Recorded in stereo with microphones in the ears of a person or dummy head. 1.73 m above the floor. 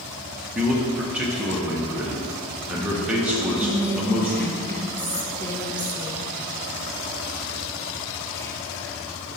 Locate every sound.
0.6 s a man speaking: 5° right (ahead or behind), 0.8 m
3.5 s whispering: 15° left (ahead or behind), 0.6 m